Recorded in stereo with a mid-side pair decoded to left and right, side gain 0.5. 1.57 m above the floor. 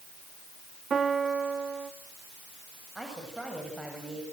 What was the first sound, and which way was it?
A piano, 40° right.